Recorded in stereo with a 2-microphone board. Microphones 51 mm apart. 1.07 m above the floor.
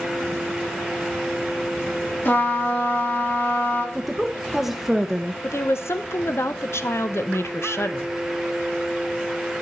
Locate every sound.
2.2 s a trumpet: 40° left (ahead or behind), 1.8 m
4.0 s a woman speaking: 5° right (ahead or behind), 0.7 m
5.4 s a woman speaking: 60° left (ahead or behind), 0.6 m